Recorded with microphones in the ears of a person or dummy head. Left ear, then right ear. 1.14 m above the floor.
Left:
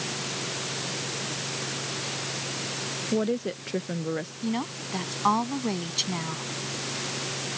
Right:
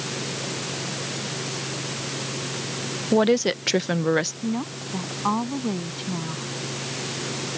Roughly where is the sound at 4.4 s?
Left.